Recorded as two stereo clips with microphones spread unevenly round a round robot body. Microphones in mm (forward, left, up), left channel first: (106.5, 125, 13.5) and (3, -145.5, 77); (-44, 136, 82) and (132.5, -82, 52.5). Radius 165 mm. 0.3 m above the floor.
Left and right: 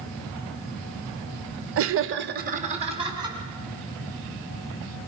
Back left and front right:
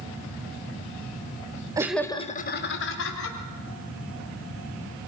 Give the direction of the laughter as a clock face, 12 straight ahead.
4 o'clock.